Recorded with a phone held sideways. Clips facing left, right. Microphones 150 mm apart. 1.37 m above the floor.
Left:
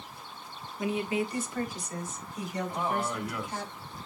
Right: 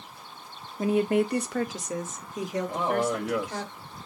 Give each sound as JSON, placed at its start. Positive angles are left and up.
{"t": 0.8, "sound": "a woman speaking", "side_deg": -35, "distance_m": 1.6}
{"t": 2.7, "sound": "a man speaking", "side_deg": -80, "distance_m": 2.5}